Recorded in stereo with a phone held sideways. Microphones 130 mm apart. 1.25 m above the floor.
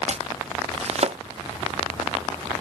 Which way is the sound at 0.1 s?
55° right (ahead or behind).